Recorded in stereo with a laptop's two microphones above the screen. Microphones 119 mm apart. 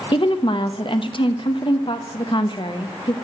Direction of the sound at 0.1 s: 50° left (ahead or behind).